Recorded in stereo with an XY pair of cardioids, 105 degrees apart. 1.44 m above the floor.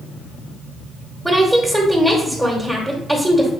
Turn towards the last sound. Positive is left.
turn(degrees=0)